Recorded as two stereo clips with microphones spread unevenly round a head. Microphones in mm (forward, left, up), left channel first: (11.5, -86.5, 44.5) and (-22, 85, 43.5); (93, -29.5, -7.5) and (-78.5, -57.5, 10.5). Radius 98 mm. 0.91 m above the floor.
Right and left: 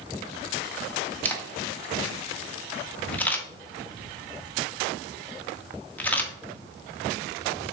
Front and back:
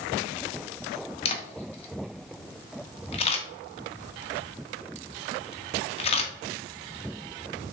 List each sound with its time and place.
1.2 s a camera shutter: straight ahead, 0.8 m